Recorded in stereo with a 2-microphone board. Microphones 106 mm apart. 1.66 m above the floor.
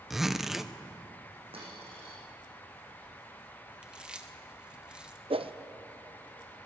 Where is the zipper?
5° right (ahead or behind), 0.9 m.